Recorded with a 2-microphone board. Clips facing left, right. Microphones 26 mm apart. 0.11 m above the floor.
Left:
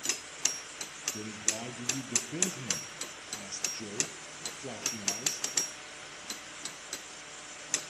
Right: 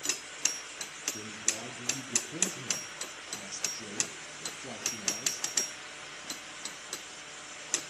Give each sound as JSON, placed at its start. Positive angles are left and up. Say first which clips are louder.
{"t": 1.1, "sound": "a man speaking", "louder": "left 1 dB", "side_deg": 15, "distance_m": 2.5}